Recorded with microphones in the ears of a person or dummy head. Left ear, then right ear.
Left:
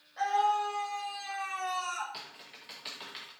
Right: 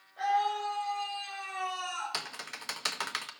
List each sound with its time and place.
0.2 s a scream: 65° left (ahead or behind), 5.5 m; by 2.0 s 50° left (ahead or behind), 5 m
2.1 s typing on a keyboard: 50° right (ahead or behind), 0.6 m